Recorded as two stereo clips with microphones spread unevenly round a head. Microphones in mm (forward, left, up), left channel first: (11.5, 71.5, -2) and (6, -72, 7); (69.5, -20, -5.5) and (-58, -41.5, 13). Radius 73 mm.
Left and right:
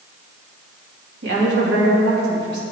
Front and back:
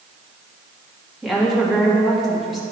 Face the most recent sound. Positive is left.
turn(degrees=-80)